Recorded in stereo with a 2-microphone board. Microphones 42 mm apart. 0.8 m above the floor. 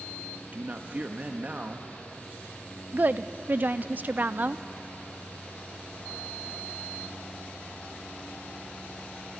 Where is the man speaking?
40° right (ahead or behind), 1.3 m.